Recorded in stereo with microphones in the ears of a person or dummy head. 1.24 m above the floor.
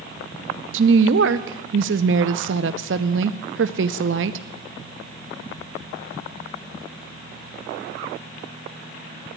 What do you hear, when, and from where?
0.7 s a woman speaking: 65° right (ahead or behind), 0.6 m